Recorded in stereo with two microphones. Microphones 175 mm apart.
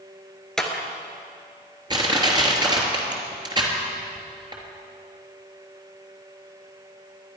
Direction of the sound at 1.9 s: 25° right (ahead or behind).